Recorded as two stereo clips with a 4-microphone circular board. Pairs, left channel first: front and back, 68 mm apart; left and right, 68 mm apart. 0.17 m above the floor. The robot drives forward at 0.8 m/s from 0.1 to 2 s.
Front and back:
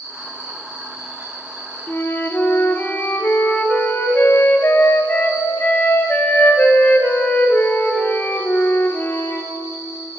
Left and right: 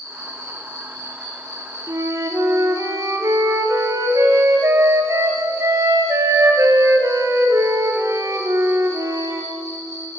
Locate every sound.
0.0 s an insect: 145° left, 4 m; by 10.2 s 155° left, 5.5 m
1.9 s a flute: 55° right, 0.9 m; by 9.5 s 60° right, 0.9 m